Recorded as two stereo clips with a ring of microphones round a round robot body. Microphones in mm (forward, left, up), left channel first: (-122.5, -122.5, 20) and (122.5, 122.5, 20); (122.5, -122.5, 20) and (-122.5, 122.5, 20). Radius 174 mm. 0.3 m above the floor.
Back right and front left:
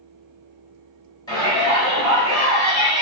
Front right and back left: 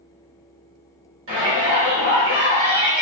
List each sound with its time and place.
1.3 s a shout: 155° left, 1.3 m